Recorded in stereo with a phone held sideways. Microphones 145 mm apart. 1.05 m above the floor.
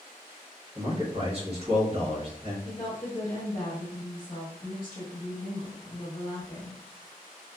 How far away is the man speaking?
About 1.2 m.